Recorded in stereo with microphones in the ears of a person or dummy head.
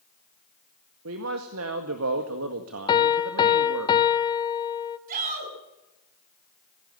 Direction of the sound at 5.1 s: 45° right (ahead or behind).